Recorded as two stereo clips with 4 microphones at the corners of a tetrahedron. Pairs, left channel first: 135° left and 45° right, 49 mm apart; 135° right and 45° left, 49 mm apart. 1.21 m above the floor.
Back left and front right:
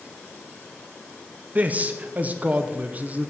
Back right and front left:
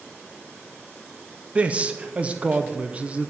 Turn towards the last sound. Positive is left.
turn(degrees=-10)